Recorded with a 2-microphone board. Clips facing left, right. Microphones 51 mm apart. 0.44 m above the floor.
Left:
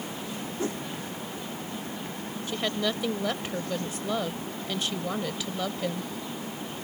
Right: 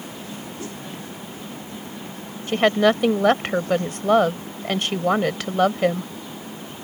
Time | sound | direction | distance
0.6 | a whoosh | 30° left (ahead or behind) | ?
2.5 | a woman speaking | 60° right (ahead or behind) | ?